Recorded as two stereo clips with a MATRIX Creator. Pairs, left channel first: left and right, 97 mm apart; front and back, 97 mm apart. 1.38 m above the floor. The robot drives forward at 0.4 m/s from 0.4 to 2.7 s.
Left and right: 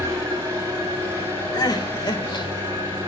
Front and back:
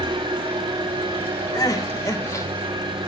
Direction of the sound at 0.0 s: 155° right.